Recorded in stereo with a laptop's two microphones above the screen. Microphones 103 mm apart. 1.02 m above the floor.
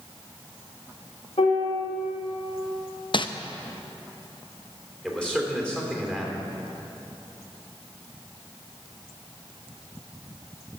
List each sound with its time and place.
1.4 s a piano: 65° left (ahead or behind), 2.5 m
3.1 s crumpling: 50° left (ahead or behind), 0.6 m
5.0 s a man speaking: 10° left (ahead or behind), 3.5 m